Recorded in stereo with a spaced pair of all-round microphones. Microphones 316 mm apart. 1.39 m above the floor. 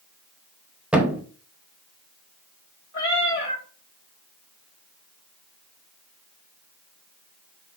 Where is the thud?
5° right (ahead or behind), 0.7 m.